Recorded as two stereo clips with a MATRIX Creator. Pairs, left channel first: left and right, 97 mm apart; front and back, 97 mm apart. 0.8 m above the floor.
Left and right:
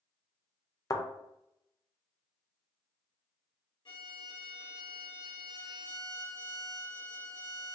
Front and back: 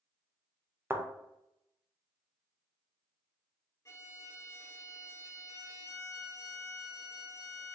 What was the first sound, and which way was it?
A thud, 120° left.